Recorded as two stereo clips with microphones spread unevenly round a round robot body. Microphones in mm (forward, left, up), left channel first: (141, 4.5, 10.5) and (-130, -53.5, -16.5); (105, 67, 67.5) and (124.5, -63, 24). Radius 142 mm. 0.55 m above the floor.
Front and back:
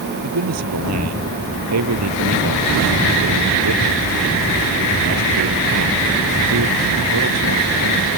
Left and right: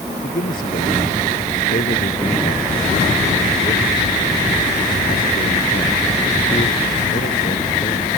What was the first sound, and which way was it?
A man speaking, 155° left.